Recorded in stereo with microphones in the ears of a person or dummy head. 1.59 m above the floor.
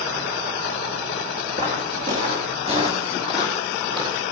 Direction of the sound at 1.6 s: 45° right (ahead or behind).